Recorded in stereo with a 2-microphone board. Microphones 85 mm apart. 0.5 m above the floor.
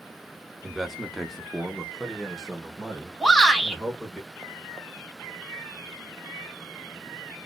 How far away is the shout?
About 2.5 m.